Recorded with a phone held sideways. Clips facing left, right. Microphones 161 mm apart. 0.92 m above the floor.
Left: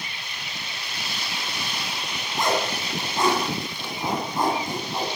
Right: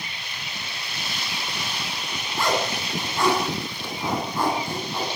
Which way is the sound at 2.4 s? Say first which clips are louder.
Even; 20° left (ahead or behind).